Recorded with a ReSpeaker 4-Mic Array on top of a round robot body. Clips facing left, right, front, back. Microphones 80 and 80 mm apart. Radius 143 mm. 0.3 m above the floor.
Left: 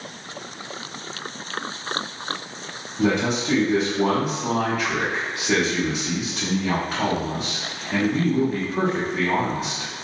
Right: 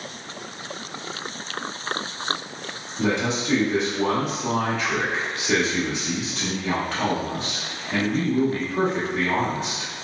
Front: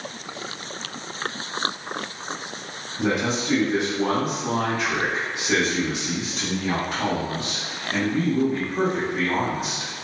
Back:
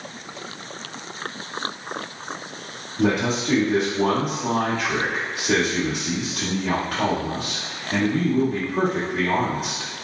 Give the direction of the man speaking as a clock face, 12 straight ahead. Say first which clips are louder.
Left 2 dB, back 2 dB; 6 o'clock.